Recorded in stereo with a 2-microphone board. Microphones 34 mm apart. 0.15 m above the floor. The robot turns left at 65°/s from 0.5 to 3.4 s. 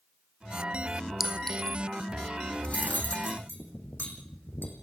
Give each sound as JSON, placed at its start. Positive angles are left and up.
{"t": 1.2, "sound": "a clink", "side_deg": -5, "distance_m": 1.5}
{"t": 2.6, "sound": "cutlery clinking", "side_deg": 35, "distance_m": 5.5}